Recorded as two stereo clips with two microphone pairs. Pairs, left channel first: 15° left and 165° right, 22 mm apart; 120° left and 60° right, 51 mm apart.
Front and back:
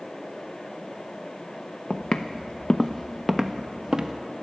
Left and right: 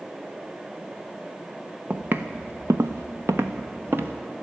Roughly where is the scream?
I don't hear a scream.